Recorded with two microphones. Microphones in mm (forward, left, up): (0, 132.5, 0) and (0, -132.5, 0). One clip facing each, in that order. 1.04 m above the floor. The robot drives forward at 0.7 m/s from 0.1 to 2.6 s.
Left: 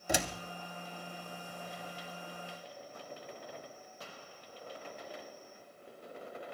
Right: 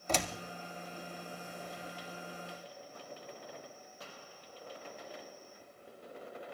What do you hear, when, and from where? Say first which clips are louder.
0.1 s a door slam: left 1 dB; 10° left (ahead or behind), 1.1 m